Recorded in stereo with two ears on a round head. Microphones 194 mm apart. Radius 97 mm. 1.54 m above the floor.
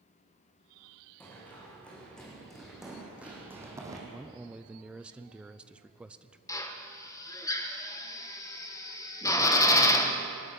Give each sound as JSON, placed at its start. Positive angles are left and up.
{"t": 1.2, "sound": "running footsteps", "side_deg": 10, "distance_m": 7.0}
{"t": 4.1, "sound": "a man speaking", "side_deg": -5, "distance_m": 0.7}
{"t": 6.5, "sound": "a drill", "side_deg": 15, "distance_m": 1.5}